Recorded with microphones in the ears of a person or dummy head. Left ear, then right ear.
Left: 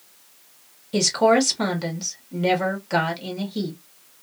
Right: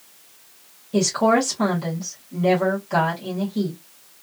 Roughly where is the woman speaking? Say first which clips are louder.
Left 1 dB; left.